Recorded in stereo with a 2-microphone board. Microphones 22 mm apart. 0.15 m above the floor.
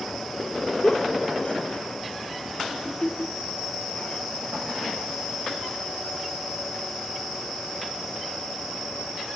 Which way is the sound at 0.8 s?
55° left (ahead or behind).